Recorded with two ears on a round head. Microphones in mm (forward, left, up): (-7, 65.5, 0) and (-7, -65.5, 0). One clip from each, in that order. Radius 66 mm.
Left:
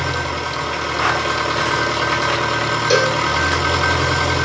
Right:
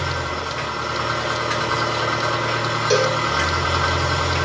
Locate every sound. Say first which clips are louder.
0.0 s an engine running: left 3 dB; 55° left (ahead or behind), 1.4 m
2.9 s a cowbell: left 2 dB; 15° left (ahead or behind), 0.7 m